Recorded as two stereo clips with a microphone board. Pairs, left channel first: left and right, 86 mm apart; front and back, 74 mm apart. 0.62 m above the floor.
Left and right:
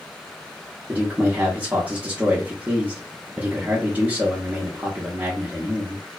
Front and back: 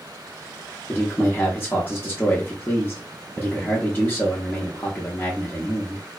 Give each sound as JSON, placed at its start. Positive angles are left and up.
{"t": 0.9, "sound": "a man speaking", "azimuth_deg": -35, "distance_m": 0.6}